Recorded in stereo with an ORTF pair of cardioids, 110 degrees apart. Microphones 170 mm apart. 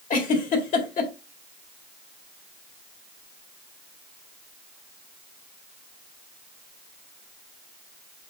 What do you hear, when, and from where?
0.1 s a giggle: 50° left, 2 m